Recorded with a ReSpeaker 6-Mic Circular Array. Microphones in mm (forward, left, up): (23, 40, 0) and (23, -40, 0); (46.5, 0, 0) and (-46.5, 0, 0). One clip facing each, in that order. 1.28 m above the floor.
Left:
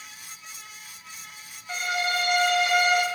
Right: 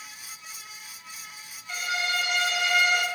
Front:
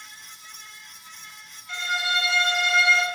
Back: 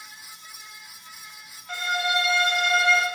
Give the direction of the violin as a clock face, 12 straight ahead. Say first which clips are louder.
Left 2 dB, back 2 dB; 7 o'clock.